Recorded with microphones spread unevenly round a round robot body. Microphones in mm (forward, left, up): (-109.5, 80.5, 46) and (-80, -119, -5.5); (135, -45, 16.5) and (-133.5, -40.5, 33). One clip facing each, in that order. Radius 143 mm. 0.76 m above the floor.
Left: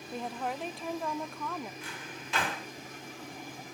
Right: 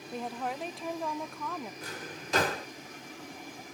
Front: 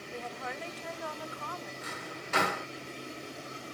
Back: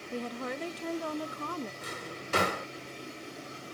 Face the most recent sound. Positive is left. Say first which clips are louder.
# right 2 dB, back 1 dB
turn(degrees=-130)